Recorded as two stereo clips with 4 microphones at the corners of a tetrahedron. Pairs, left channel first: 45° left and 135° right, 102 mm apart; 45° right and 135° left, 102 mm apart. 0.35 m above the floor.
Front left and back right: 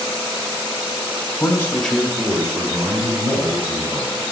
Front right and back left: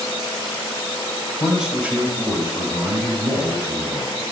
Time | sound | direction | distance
1.4 | a man speaking | 50° left | 1.1 m